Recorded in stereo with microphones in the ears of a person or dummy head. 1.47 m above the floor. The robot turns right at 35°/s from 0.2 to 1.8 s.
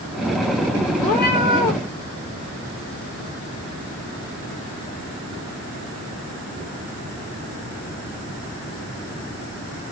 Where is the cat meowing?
40° left (ahead or behind), 1.4 m; by 1.8 s 45° left (ahead or behind), 1.4 m.